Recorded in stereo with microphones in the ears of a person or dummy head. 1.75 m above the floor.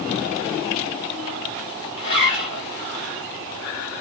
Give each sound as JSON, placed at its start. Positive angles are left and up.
{"t": 2.0, "sound": "a zipper", "side_deg": 30, "distance_m": 2.5}